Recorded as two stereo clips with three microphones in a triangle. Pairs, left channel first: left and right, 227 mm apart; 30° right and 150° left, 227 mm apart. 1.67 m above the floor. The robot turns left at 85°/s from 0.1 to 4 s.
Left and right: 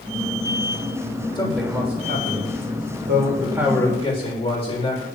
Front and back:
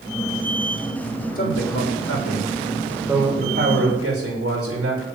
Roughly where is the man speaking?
Ahead.